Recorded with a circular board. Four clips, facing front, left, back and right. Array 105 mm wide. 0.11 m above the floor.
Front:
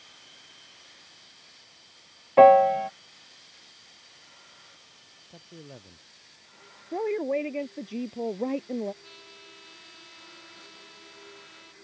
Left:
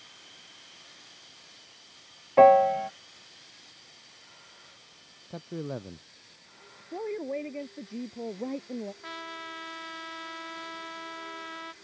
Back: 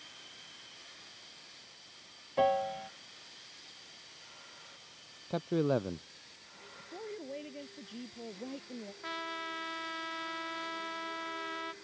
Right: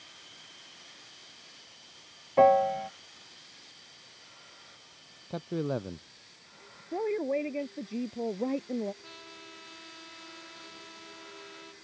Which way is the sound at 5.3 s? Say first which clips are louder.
Right 4 dB, back 17 dB; 160° right.